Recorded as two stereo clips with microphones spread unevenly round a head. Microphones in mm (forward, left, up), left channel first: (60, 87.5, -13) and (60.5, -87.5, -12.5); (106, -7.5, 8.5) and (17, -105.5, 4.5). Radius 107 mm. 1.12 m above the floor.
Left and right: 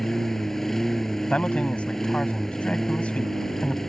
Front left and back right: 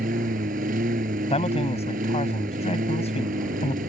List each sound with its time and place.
0.0 s a lawn mower: straight behind
1.3 s a man speaking: 5° left